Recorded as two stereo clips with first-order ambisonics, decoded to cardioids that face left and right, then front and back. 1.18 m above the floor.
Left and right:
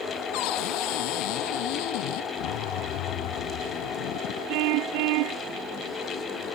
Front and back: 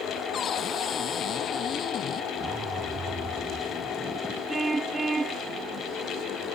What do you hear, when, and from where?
0.3 s a cupboard door: 65° left
2.4 s a zipper: 110° left
4.5 s a car horn: 105° right